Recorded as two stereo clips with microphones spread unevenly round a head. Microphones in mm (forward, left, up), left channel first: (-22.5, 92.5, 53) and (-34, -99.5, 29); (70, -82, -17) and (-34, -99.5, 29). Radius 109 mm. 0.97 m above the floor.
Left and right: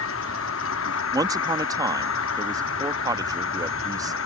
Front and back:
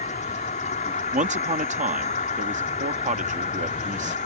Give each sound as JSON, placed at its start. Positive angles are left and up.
{"t": 0.0, "sound": "an insect", "azimuth_deg": 55}
{"t": 1.1, "sound": "a man speaking", "azimuth_deg": -160}